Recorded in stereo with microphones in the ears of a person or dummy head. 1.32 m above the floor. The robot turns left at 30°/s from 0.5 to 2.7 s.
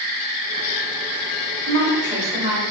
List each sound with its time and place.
1.7 s a woman speaking: 30° right (ahead or behind), 1.0 m; by 2.6 s 60° right (ahead or behind), 1.0 m